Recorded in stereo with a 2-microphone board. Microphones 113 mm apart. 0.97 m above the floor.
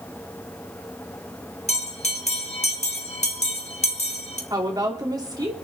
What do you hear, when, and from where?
1.7 s a bell: 85° left, 2 m
4.5 s a woman speaking: 35° right (ahead or behind), 3 m